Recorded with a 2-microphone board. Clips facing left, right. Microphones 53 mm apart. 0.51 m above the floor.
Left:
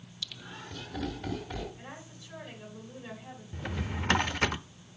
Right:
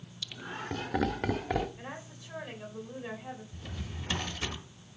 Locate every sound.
0.2 s laughter: 15° right (ahead or behind), 0.8 m; by 1.7 s 70° right (ahead or behind), 1.8 m
1.8 s a woman speaking: 20° right (ahead or behind), 2.5 m
3.5 s a drawer: 65° left (ahead or behind), 0.7 m